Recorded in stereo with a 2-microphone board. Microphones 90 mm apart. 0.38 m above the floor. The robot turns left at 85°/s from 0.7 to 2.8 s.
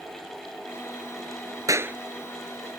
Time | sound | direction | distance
1.7 | a clap | 40° right (ahead or behind) | ?